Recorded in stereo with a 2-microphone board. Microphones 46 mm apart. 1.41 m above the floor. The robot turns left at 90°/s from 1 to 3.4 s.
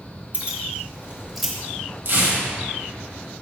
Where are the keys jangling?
30° right (ahead or behind), 1.4 m; by 1.5 s 10° left (ahead or behind), 1.4 m.